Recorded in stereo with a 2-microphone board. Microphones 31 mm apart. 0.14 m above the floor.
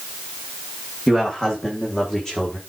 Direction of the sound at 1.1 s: 25° left (ahead or behind).